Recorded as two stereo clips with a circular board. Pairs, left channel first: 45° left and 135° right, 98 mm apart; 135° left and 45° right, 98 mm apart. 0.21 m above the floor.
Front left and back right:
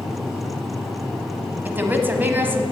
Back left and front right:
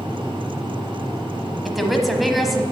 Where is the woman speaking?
135° right, 1.0 m.